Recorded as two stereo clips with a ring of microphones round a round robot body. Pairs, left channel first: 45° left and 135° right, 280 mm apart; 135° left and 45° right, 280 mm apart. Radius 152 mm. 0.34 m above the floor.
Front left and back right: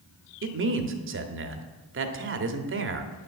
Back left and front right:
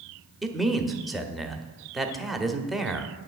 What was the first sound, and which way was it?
A man speaking, 135° right.